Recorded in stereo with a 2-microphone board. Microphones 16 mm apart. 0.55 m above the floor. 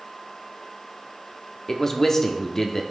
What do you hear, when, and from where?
1.7 s a man speaking: 30° left (ahead or behind), 1.3 m